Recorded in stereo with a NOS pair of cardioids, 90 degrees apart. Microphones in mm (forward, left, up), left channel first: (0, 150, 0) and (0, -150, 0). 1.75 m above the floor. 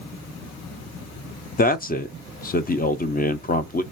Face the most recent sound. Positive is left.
turn(degrees=30)